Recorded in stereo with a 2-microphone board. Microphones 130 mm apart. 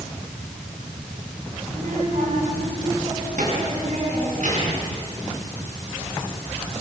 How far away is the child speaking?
About 7.5 m.